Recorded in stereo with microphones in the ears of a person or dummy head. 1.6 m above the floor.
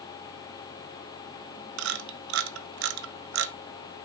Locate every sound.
1.8 s a camera shutter: 70° right (ahead or behind), 0.8 m